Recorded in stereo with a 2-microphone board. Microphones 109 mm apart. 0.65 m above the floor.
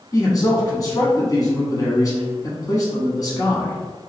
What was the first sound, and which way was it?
A man speaking, 35° left (ahead or behind).